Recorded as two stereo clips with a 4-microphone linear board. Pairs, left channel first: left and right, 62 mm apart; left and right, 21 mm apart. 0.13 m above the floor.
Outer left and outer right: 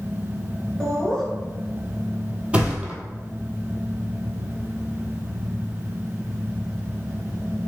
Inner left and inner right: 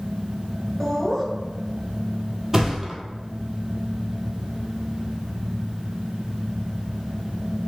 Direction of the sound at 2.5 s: 20° right (ahead or behind).